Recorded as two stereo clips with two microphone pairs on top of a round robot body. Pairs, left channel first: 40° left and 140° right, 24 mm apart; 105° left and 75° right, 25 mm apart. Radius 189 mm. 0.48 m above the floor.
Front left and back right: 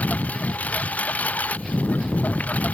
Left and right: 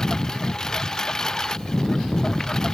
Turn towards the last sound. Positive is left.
turn(degrees=40)